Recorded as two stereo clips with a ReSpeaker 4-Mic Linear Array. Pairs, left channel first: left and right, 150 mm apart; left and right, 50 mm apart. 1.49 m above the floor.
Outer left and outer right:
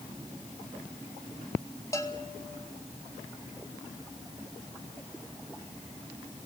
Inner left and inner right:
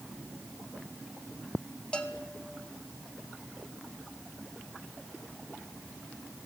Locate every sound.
1.9 s a bell: 20° left (ahead or behind), 2 m